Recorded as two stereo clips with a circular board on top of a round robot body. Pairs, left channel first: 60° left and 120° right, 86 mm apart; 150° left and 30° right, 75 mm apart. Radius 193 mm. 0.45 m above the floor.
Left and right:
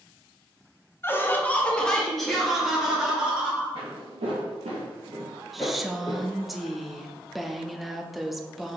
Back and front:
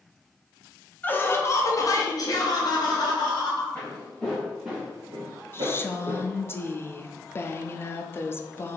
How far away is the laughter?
About 1.0 m.